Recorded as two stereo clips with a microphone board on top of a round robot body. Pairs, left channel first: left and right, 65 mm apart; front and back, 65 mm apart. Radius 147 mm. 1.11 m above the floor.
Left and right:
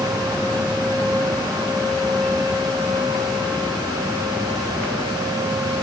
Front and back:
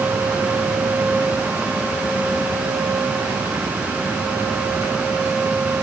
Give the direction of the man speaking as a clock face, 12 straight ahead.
I don't hear a man speaking.